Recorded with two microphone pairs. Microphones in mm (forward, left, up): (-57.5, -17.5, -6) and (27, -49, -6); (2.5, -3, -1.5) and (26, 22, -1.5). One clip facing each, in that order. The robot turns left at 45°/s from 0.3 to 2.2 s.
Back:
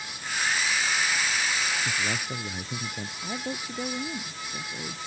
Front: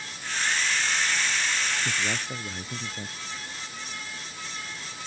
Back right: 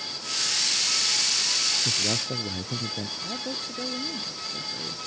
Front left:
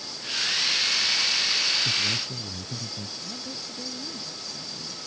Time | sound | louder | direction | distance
1.9 | a man speaking | even, front left 1 dB | 95° right | ?
3.2 | a woman speaking | back 6 dB, back right 4 dB | 175° right | ?